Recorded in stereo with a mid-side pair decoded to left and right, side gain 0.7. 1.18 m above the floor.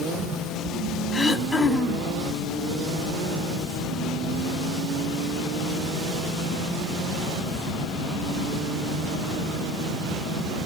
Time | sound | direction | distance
1.1 | throat clearing | 20° left | 2.0 m